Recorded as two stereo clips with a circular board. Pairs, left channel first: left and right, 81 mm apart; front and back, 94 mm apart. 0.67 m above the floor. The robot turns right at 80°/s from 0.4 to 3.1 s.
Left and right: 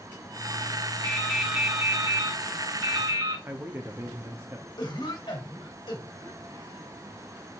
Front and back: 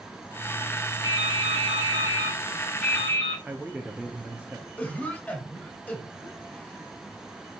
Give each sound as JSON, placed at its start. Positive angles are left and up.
{"t": 1.0, "sound": "dripping", "azimuth_deg": 145, "distance_m": 5.0}
{"t": 3.5, "sound": "a man speaking", "azimuth_deg": -115, "distance_m": 1.1}
{"t": 4.8, "sound": "a cough", "azimuth_deg": 75, "distance_m": 3.0}